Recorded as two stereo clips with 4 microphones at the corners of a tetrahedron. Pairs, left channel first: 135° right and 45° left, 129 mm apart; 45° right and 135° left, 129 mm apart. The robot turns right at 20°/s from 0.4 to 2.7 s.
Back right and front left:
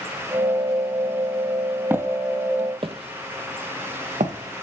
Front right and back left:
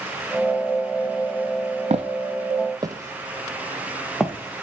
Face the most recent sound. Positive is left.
turn(degrees=45)